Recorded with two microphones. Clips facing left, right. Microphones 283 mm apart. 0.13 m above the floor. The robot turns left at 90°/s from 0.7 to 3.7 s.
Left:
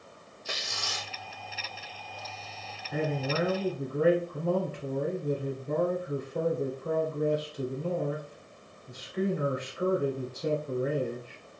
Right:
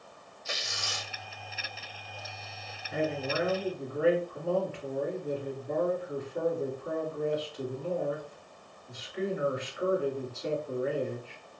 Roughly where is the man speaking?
Behind.